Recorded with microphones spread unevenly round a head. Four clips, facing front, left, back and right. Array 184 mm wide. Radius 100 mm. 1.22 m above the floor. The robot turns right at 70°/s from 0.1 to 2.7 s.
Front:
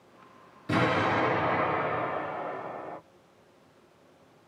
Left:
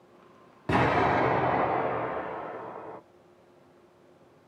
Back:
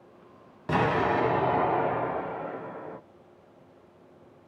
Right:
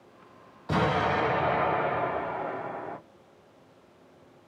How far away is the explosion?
About 1.4 m.